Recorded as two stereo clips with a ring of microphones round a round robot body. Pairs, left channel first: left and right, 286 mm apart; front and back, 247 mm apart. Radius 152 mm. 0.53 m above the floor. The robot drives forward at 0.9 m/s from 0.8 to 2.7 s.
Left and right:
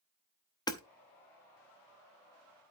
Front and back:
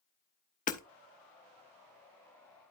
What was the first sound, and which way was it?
Hammering, 25° left.